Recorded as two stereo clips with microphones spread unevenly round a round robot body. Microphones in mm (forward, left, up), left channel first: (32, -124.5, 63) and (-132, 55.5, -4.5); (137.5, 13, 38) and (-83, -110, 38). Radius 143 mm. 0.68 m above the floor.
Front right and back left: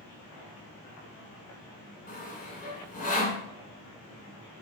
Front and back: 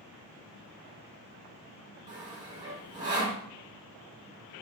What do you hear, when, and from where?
2.1 s sawing: 105° right, 1.2 m